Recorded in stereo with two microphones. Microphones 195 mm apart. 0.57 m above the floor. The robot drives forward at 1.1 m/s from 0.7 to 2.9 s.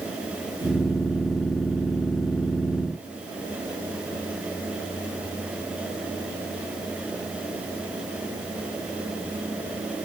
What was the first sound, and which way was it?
Only background noise.